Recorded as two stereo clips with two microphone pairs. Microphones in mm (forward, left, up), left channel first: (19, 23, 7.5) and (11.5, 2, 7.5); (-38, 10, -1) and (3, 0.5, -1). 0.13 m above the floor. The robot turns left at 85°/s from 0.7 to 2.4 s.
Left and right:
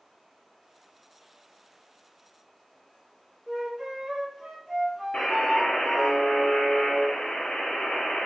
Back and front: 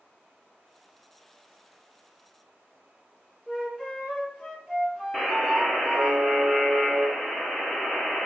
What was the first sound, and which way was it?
A flute, 100° right.